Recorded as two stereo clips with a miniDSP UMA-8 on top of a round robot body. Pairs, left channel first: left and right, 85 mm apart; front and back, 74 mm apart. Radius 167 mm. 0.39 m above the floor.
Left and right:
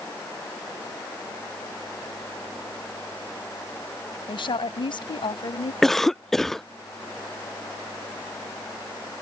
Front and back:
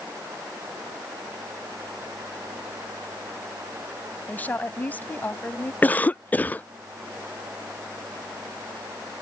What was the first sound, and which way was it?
A woman speaking, 65° left.